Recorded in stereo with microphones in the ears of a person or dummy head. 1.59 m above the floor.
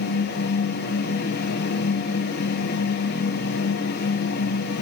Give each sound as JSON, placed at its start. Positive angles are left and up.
{"t": 0.0, "sound": "a fan", "side_deg": 55, "distance_m": 3.0}